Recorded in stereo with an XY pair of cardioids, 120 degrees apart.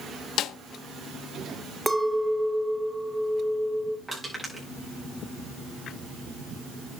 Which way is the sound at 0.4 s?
65° left.